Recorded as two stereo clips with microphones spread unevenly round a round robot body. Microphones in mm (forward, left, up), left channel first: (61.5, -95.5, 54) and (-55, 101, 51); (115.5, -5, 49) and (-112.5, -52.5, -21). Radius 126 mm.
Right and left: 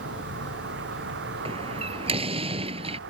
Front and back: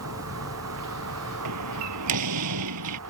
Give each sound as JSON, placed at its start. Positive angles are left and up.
{"t": 0.0, "sound": "a vehicle", "azimuth_deg": 160}
{"t": 1.4, "sound": "a door slam", "azimuth_deg": -175}